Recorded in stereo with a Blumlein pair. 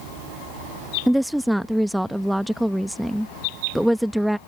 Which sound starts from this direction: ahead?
A woman speaking, at 1.1 s.